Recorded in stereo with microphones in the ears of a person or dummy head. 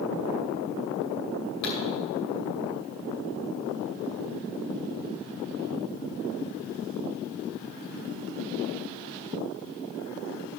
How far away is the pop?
About 7 m.